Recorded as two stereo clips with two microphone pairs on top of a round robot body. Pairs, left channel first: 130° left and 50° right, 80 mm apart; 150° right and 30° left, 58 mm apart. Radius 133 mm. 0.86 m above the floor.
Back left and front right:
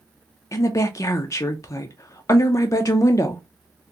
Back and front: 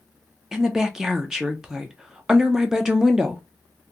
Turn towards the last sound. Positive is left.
turn(degrees=110)